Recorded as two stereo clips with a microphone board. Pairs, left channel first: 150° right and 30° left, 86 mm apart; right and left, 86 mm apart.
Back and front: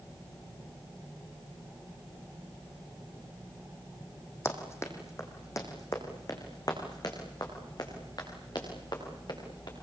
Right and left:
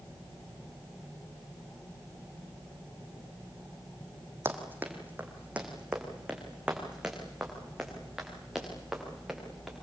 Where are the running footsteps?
150° left, 4 m; by 9.7 s 175° left, 10.5 m.